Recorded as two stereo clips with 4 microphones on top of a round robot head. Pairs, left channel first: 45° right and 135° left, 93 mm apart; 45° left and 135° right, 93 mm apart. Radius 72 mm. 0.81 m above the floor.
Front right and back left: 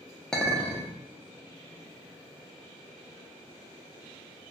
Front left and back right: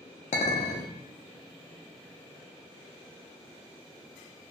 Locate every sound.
0.3 s a clink: 40° left, 0.5 m